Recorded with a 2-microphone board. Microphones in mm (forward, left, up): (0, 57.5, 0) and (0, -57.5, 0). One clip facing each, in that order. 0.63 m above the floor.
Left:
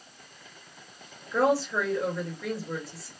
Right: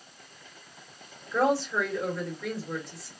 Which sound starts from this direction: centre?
A woman speaking, at 1.3 s.